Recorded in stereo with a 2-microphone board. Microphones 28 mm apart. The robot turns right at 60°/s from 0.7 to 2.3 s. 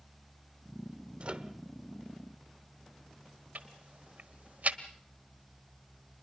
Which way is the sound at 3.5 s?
70° right (ahead or behind).